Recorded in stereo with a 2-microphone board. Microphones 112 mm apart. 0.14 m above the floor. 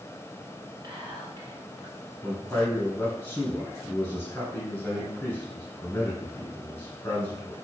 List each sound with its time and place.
0.8 s whispering: 40° right (ahead or behind), 1.4 m
2.2 s a man speaking: 15° left (ahead or behind), 1.5 m